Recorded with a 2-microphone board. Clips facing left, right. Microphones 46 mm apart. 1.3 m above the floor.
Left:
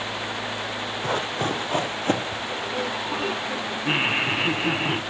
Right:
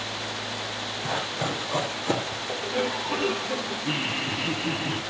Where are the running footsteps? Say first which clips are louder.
Left 3 dB; 60° left (ahead or behind), 2.5 m; by 2.4 s 45° left (ahead or behind), 1.9 m.